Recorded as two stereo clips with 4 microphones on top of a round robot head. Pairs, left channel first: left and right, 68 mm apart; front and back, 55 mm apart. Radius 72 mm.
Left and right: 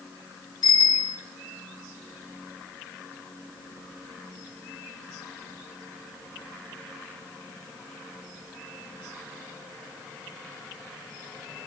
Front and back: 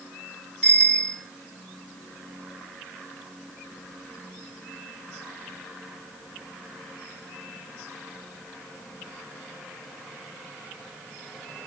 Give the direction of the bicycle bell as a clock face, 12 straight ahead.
10 o'clock.